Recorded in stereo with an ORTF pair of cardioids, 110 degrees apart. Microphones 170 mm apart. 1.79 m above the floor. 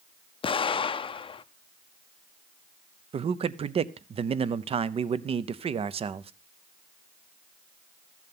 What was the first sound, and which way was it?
An explosion, 30° left.